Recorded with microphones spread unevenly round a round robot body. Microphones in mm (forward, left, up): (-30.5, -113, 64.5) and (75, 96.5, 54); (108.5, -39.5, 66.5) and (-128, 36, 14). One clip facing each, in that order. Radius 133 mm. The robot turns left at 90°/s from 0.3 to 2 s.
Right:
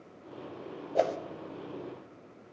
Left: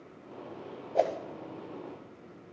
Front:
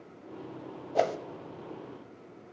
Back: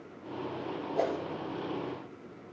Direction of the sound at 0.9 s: 35° right.